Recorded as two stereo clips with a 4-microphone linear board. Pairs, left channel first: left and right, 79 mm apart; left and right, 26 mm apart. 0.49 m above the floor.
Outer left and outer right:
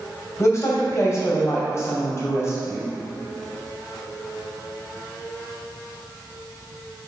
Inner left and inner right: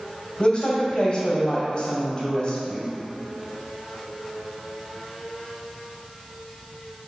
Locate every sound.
0.4 s a woman speaking: 35° left (ahead or behind), 2 m